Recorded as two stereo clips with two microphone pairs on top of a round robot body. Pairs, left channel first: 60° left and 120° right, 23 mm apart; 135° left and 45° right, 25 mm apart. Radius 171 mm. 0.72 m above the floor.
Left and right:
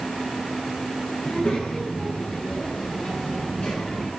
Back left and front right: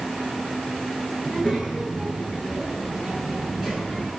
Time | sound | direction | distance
1.2 | a child speaking | 30° left | 9.5 m